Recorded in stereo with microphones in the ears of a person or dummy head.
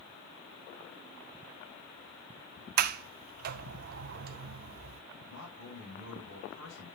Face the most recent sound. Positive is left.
turn(degrees=75)  # may be behind; listen again after turning